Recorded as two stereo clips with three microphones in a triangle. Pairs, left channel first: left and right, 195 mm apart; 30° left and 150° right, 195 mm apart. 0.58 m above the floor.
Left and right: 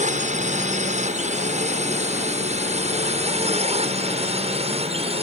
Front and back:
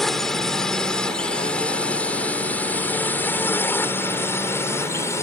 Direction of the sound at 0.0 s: 60° right.